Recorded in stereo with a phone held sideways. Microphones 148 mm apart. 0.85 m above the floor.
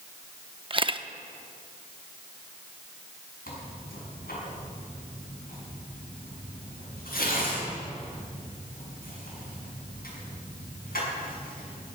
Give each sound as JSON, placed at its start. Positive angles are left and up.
{"t": 0.7, "sound": "a camera shutter", "side_deg": -35, "distance_m": 0.6}
{"t": 3.5, "sound": "tearing paper", "side_deg": 85, "distance_m": 6.5}